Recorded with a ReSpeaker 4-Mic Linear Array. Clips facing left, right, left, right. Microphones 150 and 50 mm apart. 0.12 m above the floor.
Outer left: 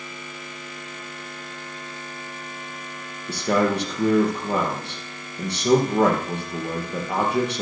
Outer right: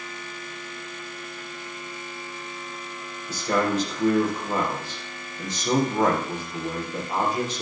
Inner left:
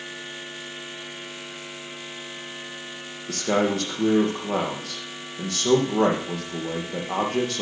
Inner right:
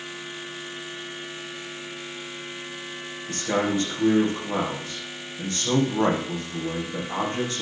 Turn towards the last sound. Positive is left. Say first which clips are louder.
# outer left 3 dB, inner left 2 dB
turn(degrees=65)  # may be behind; listen again after turning